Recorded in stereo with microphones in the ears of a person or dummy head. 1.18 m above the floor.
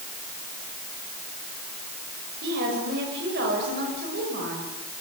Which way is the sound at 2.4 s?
55° right (ahead or behind).